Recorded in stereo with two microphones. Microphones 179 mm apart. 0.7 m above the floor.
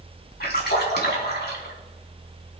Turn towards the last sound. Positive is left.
turn(degrees=70)  # may be behind; listen again after turning